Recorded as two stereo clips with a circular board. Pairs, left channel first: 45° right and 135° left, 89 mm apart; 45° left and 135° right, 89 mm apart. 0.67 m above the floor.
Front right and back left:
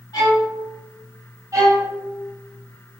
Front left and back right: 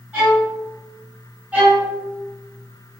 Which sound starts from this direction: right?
A violin, at 0.1 s.